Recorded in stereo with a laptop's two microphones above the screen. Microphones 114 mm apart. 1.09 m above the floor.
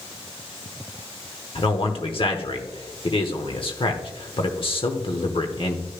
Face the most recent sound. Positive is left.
turn(degrees=55)  # may be behind; listen again after turning